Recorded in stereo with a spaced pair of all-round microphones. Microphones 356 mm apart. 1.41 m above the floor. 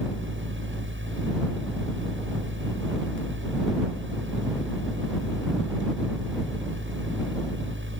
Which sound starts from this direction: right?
A fan, at 0.0 s.